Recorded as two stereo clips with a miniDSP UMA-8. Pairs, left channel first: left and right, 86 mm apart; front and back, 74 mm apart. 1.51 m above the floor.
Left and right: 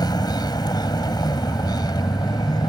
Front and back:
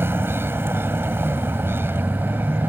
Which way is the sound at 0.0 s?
125° left.